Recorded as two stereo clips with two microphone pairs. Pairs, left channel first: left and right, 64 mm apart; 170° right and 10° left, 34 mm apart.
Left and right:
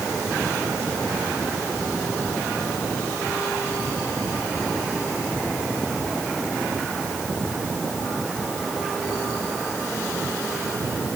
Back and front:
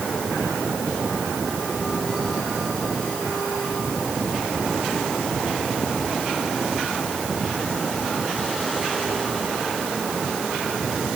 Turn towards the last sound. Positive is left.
No sound to turn to.